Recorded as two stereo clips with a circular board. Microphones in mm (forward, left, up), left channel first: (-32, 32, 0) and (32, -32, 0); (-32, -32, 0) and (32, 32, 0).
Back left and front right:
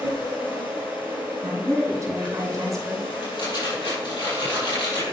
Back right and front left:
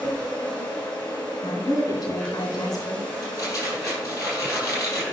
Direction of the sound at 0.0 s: 150° left.